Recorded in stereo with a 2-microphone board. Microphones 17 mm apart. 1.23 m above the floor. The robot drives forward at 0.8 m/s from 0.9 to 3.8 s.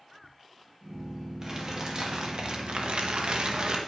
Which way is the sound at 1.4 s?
35° right (ahead or behind).